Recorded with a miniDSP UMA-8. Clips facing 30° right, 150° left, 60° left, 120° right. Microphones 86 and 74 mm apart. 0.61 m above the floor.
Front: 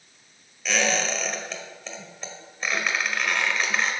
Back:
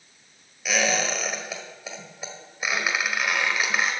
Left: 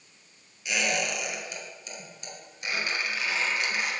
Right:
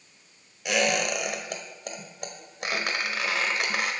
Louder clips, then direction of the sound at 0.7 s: Even, right 4 dB; 130° right.